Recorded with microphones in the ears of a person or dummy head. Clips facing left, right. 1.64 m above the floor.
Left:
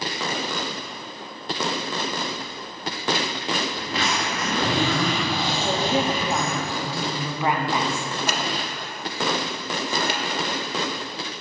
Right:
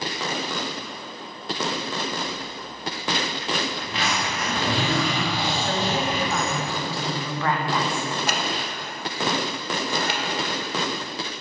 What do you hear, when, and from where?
3.8 s a zipper: 35° left (ahead or behind), 1.7 m
5.6 s a woman speaking: 10° left (ahead or behind), 0.6 m
8.3 s scissors: 80° left, 0.7 m